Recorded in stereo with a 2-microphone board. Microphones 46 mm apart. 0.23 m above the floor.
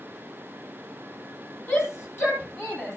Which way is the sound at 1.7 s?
50° left (ahead or behind).